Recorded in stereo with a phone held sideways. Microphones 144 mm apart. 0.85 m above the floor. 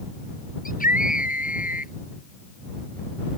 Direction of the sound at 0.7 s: 75° left (ahead or behind).